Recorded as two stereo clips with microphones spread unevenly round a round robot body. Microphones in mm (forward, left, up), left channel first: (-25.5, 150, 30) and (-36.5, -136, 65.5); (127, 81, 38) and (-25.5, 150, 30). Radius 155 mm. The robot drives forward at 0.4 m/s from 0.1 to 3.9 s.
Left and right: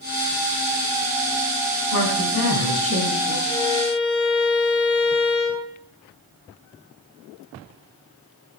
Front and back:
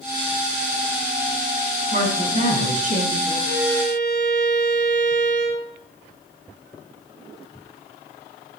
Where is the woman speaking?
120° left, 3.5 m; by 3.4 s 125° left, 4 m.